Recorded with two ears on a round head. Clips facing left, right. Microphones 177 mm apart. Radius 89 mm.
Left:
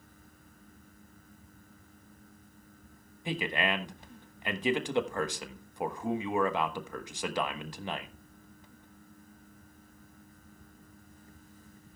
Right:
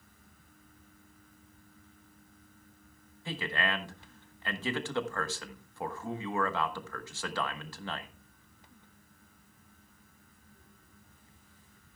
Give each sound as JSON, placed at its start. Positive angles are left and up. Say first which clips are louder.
{"t": 3.2, "sound": "a man speaking", "louder": "left 3 dB", "side_deg": 15, "distance_m": 1.2}